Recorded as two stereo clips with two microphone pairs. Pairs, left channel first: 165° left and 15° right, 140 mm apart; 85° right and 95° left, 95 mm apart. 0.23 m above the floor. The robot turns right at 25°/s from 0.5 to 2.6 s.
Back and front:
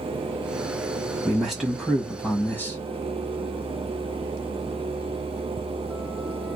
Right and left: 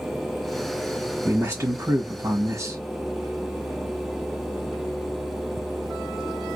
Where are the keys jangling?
I don't hear keys jangling.